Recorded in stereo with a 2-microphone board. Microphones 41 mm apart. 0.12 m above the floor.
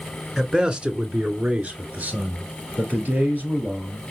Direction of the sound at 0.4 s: 15° right (ahead or behind).